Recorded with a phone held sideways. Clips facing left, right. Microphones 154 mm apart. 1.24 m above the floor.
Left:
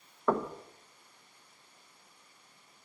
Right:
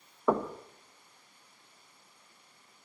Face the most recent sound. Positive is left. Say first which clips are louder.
# right 2 dB
turn(degrees=-10)  # may be behind; listen again after turning